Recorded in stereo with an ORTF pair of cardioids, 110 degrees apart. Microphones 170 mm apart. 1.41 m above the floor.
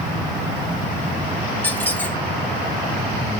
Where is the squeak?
10° left, 0.7 m.